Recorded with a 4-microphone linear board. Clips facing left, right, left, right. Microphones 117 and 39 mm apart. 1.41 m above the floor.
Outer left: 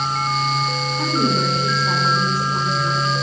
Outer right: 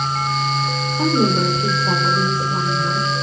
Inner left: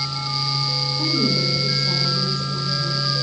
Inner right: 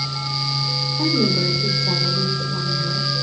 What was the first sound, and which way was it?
A woman speaking, 25° right (ahead or behind).